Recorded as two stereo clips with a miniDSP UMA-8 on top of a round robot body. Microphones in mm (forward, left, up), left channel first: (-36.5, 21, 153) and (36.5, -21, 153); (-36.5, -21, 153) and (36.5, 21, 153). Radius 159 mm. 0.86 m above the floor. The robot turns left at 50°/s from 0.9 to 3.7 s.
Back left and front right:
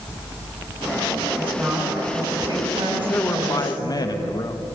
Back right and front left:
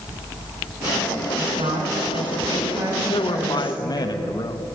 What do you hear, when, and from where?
1.4 s a woman speaking: 70° left, 8.5 m; by 4.1 s 45° right, 8.5 m
3.1 s a man speaking: 145° right, 1.6 m; by 4.6 s 175° right, 1.6 m